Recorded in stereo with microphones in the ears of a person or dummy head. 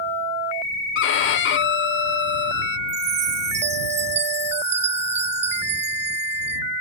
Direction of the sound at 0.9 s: 60° left (ahead or behind).